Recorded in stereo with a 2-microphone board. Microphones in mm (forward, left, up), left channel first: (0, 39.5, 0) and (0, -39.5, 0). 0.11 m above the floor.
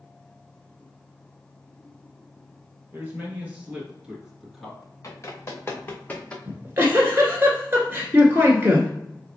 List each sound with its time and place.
2.9 s a man speaking: 25° right (ahead or behind), 2 m; by 4.9 s 5° left (ahead or behind), 1.4 m
5.0 s running footsteps: 40° left (ahead or behind), 1.6 m; by 6.3 s 15° left (ahead or behind), 1.2 m
6.5 s a giggle: 35° right (ahead or behind), 1.1 m